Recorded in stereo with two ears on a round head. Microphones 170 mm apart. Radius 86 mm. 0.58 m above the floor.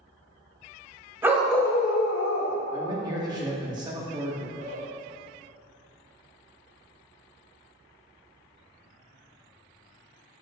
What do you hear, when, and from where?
1.2 s a dog barking: 10° right (ahead or behind), 1.3 m; by 2.6 s 80° left, 1.3 m
2.7 s a man speaking: 25° right (ahead or behind), 1.1 m
4.6 s a man speaking: 40° right (ahead or behind), 1.2 m